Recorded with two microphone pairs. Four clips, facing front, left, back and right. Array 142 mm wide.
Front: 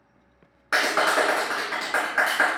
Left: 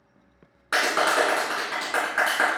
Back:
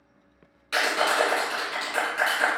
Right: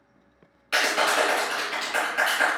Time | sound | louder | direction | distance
0.7 | a clap | left 1 dB, front 2 dB | 40° left | 3 m